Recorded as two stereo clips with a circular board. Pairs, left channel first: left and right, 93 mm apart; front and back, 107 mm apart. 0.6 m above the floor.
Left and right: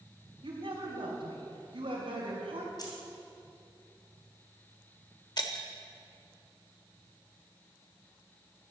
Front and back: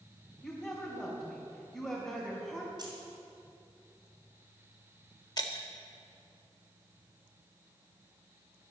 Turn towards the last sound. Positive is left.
turn(degrees=50)